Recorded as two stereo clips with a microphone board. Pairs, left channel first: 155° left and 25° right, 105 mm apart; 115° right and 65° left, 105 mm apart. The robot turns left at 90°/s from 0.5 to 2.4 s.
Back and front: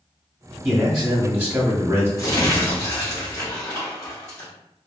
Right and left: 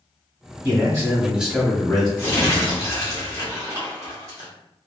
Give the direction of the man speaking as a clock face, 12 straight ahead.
9 o'clock.